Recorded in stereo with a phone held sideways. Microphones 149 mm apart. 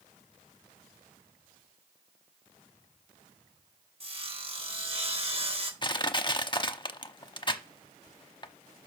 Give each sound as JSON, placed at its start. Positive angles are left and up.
{"t": 4.0, "sound": "sawing", "side_deg": -40, "distance_m": 1.7}
{"t": 5.8, "sound": "crushing", "side_deg": 30, "distance_m": 0.8}